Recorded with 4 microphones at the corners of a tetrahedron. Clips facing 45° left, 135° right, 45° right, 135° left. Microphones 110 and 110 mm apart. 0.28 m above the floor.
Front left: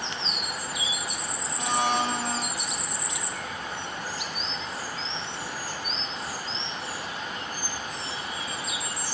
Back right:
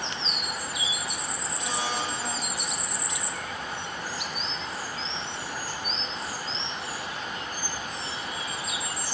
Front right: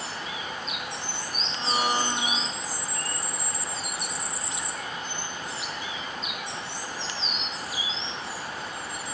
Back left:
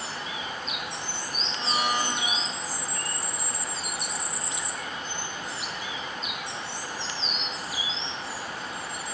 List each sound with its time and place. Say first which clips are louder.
1.6 s a blender: front left 6 dB, front right 1 dB; 15° left, 0.7 m